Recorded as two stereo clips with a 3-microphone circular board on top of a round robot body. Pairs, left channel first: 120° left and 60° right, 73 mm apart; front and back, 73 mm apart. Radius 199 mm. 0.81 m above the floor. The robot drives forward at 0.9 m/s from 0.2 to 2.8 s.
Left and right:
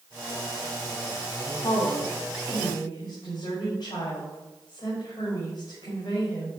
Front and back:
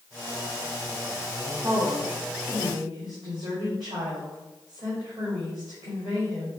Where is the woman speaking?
130° left, 1.4 m; by 6.5 s 155° left, 2.5 m.